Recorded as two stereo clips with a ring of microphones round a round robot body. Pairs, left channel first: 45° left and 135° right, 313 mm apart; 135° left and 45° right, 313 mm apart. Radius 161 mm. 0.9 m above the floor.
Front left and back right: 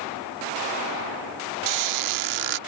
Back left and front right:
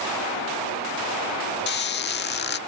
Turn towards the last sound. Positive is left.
turn(degrees=-165)